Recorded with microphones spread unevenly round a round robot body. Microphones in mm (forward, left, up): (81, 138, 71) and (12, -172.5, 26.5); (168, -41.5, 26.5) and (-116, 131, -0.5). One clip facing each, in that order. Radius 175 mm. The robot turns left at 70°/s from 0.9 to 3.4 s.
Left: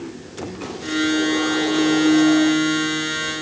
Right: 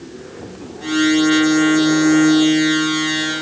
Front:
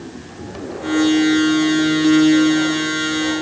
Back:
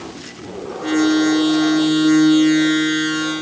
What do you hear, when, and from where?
Only background noise.